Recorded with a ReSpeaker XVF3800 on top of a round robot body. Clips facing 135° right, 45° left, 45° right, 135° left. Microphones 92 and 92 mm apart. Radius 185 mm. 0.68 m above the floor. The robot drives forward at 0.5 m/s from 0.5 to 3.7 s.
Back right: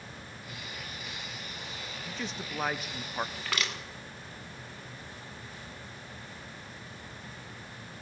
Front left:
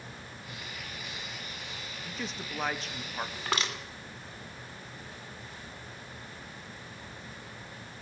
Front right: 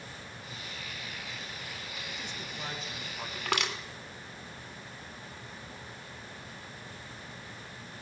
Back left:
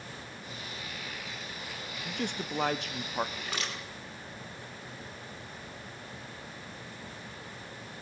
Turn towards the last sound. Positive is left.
turn(degrees=-20)